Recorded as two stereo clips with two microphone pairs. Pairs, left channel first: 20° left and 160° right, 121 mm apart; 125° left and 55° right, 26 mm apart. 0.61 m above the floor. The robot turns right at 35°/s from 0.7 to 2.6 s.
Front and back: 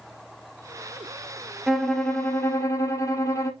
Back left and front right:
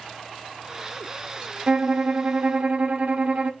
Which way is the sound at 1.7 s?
70° right.